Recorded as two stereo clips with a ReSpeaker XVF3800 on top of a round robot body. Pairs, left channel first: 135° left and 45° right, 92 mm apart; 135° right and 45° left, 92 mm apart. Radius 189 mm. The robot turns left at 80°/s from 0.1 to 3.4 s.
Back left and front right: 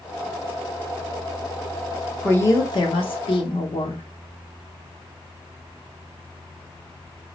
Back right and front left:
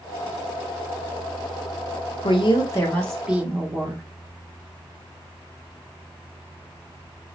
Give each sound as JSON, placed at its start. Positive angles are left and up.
{"t": 2.2, "sound": "a woman speaking", "azimuth_deg": -150, "distance_m": 1.2}